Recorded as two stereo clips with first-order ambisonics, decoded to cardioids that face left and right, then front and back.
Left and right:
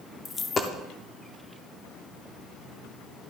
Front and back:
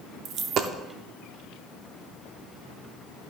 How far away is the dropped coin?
About 0.6 m.